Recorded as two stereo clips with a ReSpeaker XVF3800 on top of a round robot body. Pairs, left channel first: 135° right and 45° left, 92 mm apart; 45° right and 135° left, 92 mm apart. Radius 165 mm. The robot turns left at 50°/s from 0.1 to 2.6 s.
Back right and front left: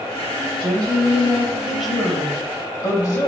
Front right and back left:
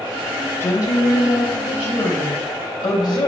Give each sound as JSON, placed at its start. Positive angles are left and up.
{"t": 0.6, "sound": "a woman speaking", "azimuth_deg": 15, "distance_m": 2.5}